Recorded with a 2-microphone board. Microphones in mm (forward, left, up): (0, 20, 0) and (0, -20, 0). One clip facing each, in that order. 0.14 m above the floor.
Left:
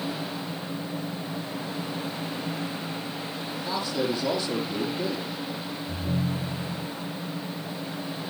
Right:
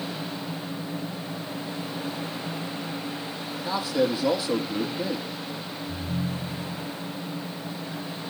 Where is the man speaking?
10° right (ahead or behind), 4.5 m.